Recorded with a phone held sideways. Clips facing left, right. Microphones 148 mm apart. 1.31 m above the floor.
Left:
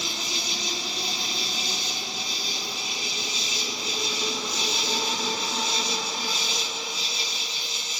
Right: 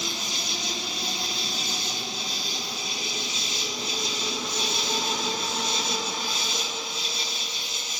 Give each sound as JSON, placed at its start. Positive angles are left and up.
{"t": 0.0, "sound": "an insect", "side_deg": -55, "distance_m": 4.0}